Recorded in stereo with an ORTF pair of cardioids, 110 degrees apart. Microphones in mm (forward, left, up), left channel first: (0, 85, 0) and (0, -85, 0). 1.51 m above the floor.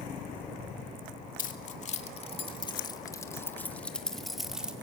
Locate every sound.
1.4 s keys jangling: 50° left, 2 m; by 4.7 s 5° right, 2.5 m